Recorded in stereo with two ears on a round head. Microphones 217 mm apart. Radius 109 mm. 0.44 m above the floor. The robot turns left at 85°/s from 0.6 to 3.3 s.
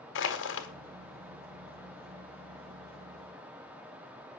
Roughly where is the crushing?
Left.